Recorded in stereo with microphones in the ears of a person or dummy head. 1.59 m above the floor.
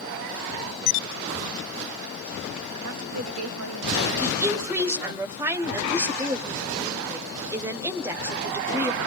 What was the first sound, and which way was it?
A woman speaking, 90° right.